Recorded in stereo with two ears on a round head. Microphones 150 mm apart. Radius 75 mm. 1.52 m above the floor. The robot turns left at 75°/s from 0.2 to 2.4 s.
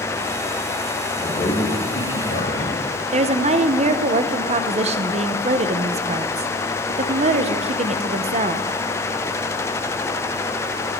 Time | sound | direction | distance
1.2 | a man speaking | 160° left | 3.5 m
3.1 | a woman speaking | 40° right (ahead or behind) | 0.8 m